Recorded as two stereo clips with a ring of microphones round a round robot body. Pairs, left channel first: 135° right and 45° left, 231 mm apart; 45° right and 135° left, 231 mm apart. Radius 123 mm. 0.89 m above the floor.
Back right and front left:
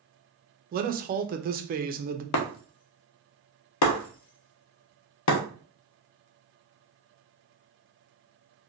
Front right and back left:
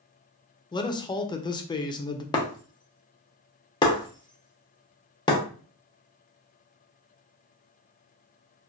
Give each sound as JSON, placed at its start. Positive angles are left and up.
{"t": 0.7, "sound": "a man speaking", "azimuth_deg": 15, "distance_m": 0.5}
{"t": 2.3, "sound": "breaking glass", "azimuth_deg": -120, "distance_m": 0.6}